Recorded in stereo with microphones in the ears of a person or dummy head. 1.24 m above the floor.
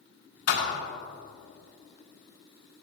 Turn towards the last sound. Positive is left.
turn(degrees=80)